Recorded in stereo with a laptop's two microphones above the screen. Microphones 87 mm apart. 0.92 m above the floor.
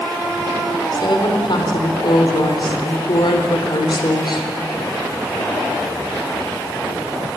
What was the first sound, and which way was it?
A woman speaking, 60° left (ahead or behind).